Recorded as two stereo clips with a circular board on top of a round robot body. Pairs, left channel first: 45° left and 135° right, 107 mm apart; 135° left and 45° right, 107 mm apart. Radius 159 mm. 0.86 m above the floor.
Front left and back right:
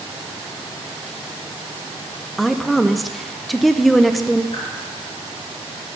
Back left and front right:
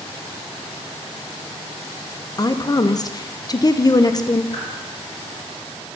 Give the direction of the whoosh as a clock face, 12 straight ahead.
9 o'clock.